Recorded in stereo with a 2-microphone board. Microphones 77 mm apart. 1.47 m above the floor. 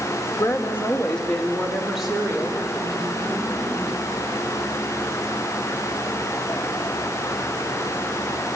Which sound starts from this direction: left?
A woman speaking, at 0.4 s.